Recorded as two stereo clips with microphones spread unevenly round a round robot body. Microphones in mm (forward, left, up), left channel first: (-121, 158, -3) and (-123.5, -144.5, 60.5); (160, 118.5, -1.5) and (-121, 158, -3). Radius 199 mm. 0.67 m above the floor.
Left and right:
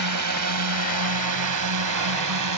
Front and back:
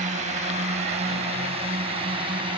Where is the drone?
115° right; by 2.6 s 110° right.